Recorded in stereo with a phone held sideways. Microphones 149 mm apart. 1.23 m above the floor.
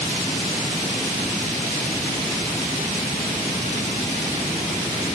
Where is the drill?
I don't hear a drill.